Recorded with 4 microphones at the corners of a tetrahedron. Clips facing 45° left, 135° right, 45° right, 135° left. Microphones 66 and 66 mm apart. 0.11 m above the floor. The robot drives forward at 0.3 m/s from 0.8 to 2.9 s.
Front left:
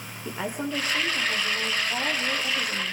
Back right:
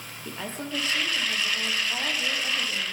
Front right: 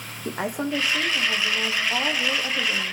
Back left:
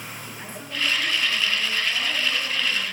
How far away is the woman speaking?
About 5 m.